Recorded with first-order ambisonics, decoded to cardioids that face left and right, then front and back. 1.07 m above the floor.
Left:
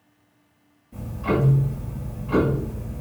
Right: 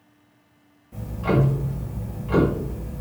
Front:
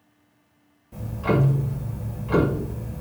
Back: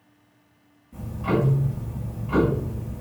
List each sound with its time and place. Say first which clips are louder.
0.9 s ticking: right 1 dB, front 1 dB; 30° right, 1.3 m